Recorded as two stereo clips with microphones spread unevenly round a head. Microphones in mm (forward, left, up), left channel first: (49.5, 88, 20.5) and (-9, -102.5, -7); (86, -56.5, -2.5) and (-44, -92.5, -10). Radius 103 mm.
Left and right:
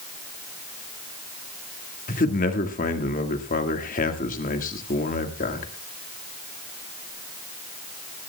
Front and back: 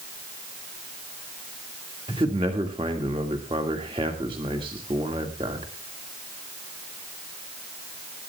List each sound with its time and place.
2.1 s a man speaking: 125° left, 1.8 m